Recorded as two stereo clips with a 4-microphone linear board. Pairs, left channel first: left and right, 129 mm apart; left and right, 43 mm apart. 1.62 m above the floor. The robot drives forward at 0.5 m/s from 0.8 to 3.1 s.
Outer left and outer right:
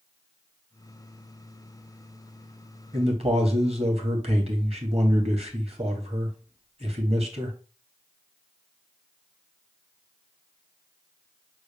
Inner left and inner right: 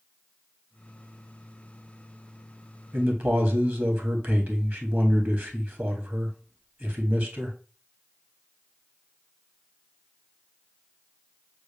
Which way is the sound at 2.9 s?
50° right (ahead or behind).